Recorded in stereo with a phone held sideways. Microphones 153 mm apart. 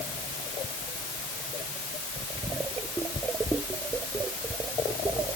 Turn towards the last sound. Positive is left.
No sound to turn to.